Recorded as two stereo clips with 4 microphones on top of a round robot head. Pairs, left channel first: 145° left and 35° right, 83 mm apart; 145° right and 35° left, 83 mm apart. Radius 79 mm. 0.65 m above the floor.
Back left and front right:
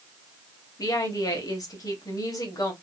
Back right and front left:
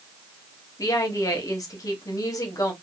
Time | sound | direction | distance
0.8 | a woman speaking | straight behind | 1.0 m